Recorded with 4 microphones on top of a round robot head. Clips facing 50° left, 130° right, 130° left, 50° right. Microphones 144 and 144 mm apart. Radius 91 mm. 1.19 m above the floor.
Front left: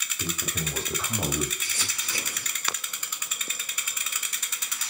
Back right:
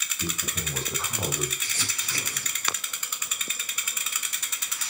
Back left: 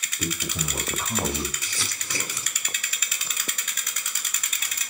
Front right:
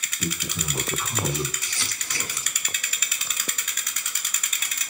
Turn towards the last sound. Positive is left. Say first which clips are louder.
# back right 1 dB, back left 1 dB
turn(degrees=130)